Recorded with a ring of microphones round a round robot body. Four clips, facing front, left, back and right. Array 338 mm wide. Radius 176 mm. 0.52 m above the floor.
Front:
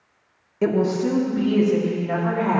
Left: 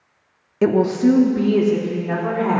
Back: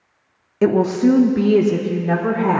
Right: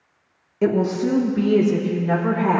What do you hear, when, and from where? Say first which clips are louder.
0.6 s a woman speaking: left 4 dB, back 5 dB; 135° left, 0.7 m; by 2.6 s 170° right, 1.5 m